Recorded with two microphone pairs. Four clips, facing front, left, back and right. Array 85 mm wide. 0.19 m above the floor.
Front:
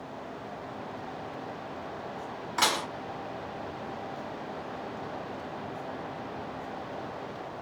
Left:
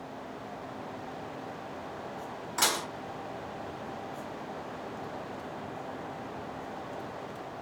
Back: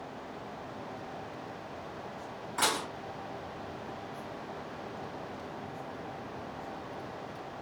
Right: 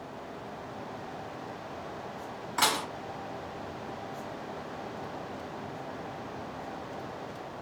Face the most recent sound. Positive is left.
turn(degrees=-40)